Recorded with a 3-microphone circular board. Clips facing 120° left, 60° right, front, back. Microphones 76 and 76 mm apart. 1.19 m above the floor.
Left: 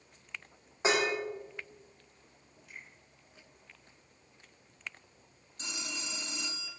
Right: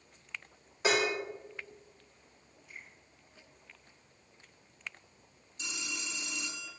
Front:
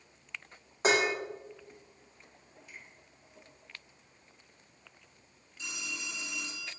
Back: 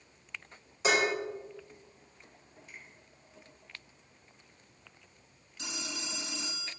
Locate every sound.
0.8 s dishes clattering: 50° left, 1.9 m
2.7 s a finger snap: 120° left, 3 m
5.6 s a phone ringing: 165° left, 1.0 m